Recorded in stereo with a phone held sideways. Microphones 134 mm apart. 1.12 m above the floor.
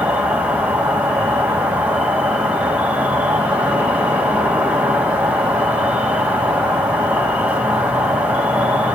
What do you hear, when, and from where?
0.0 s an insect: 10° right (ahead or behind), 1.3 m